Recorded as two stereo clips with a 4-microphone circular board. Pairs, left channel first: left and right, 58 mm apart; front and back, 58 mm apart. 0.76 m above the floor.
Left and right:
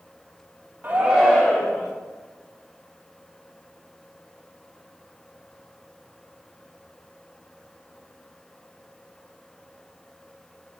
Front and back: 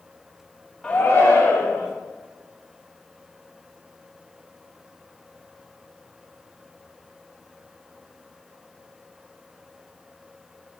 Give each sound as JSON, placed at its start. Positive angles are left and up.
{"t": 0.8, "sound": "a shout", "azimuth_deg": -65, "distance_m": 0.6}